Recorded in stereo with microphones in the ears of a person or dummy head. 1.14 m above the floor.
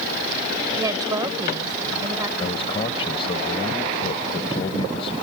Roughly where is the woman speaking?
Centre.